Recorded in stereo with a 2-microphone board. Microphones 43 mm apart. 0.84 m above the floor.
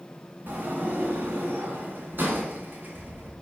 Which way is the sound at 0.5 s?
50° right (ahead or behind).